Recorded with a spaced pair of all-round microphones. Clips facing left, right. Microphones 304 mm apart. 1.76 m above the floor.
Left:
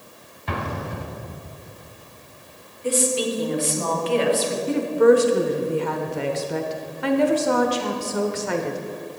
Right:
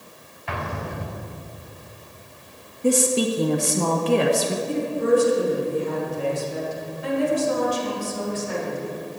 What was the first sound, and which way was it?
An explosion, 45° left (ahead or behind).